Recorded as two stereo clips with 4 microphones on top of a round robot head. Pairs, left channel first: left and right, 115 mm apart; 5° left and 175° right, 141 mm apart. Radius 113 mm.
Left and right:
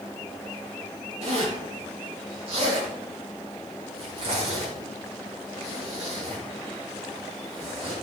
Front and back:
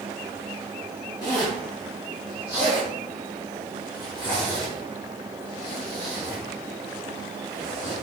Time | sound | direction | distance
1.2 | a zipper | 60° right | 4.5 m